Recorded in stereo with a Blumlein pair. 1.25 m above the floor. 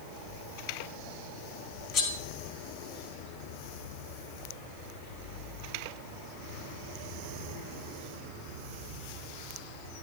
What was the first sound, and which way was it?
Cutlery clinking, 30° left.